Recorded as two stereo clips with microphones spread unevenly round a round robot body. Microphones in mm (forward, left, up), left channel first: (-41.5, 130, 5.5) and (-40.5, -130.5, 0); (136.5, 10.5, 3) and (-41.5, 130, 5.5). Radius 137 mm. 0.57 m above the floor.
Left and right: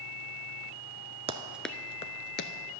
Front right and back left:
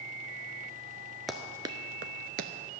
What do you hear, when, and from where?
1.3 s running footsteps: 125° right, 0.5 m; by 2.5 s 120° left, 0.7 m